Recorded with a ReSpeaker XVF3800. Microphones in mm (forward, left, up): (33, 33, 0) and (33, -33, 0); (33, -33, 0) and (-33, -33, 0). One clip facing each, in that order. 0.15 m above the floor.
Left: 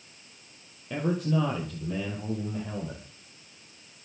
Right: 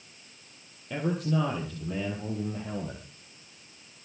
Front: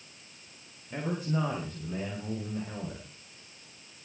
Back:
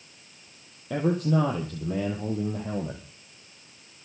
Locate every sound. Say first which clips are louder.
0.9 s a man speaking: left 1 dB, back 8 dB; straight behind, 4.5 m; by 3.0 s 170° right, 4.5 m